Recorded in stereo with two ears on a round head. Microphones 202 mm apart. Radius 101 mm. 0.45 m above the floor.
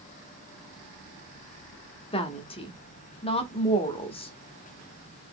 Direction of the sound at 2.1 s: 25° left (ahead or behind).